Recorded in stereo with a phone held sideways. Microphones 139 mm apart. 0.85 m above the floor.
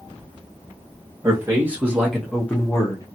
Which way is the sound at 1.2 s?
20° right (ahead or behind).